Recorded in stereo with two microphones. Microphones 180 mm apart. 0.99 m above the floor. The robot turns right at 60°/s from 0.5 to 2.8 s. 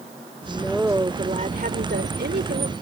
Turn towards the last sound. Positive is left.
turn(degrees=-50)